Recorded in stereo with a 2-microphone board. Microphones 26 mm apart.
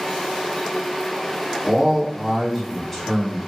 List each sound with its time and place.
1.6 s a man speaking: 25° right (ahead or behind), 1.2 m; by 3.4 s 25° left (ahead or behind), 1.2 m